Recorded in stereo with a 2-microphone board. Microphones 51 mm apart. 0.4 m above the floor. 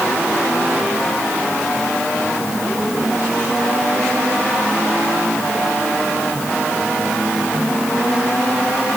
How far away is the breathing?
I don't hear breathing.